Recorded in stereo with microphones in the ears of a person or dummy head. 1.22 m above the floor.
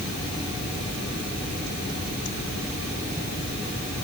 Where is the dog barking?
No dog barking in this recording.